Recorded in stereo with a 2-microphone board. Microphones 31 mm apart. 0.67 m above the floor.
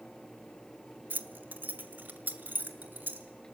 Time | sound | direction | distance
1.1 | keys jangling | 70° right (ahead or behind) | 1.3 m